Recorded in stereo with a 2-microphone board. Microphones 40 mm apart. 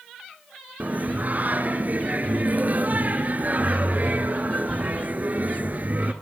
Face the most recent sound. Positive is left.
turn(degrees=-45)  # may be behind; listen again after turning